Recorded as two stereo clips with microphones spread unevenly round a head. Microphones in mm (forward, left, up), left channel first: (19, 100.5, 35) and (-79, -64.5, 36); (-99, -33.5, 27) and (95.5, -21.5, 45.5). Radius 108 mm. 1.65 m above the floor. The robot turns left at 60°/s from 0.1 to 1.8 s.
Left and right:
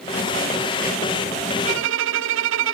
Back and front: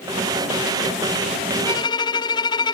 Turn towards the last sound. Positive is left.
turn(degrees=-105)